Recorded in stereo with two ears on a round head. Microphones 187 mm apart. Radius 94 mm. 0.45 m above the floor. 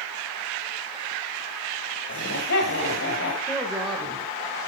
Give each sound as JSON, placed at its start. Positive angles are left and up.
{"t": 2.1, "sound": "laughter", "side_deg": 60, "distance_m": 2.0}
{"t": 3.5, "sound": "a woman speaking", "side_deg": 0, "distance_m": 2.5}